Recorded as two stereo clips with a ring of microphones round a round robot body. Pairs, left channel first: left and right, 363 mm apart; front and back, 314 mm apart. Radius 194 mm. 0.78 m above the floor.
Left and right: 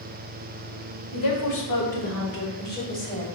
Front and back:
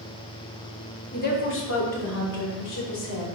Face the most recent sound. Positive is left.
turn(degrees=20)